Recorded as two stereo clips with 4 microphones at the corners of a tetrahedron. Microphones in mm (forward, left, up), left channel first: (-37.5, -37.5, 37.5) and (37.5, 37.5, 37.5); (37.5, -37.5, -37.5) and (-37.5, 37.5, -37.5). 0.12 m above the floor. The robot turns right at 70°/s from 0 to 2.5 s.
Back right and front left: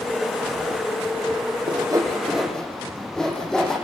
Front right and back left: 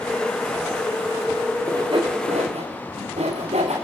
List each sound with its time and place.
1.7 s sawing: 80° left, 6.5 m; by 3.8 s 140° left, 6.5 m